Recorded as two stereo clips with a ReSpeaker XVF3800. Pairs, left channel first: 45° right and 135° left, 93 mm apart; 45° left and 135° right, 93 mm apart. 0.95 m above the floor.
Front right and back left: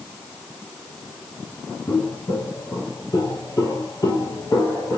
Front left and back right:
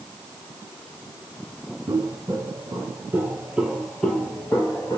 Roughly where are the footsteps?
Right.